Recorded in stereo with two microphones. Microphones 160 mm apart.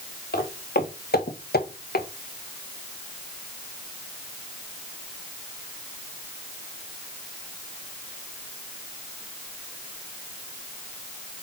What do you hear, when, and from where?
0.3 s footsteps: 75° left (ahead or behind), 3 m